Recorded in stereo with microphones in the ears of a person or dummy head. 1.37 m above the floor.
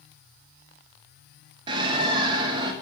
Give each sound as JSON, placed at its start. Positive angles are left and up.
{"t": 1.7, "sound": "a bird", "side_deg": -30, "distance_m": 1.1}